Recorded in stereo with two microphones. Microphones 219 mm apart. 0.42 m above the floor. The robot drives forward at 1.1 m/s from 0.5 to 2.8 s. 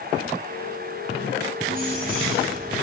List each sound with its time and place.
1.7 s keys jangling: 40° right (ahead or behind), 6.5 m; by 2.7 s 35° right (ahead or behind), 7.5 m